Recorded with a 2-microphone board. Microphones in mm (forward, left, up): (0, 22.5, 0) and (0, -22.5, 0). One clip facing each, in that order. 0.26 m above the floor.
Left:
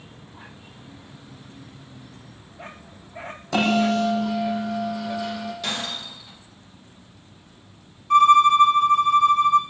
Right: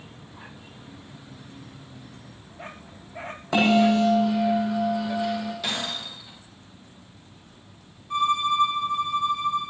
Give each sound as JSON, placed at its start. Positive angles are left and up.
{"t": 3.5, "sound": "a bell", "side_deg": -15, "distance_m": 7.5}
{"t": 5.6, "sound": "breaking glass", "side_deg": -5, "distance_m": 8.0}
{"t": 8.1, "sound": "a violin", "side_deg": 70, "distance_m": 1.6}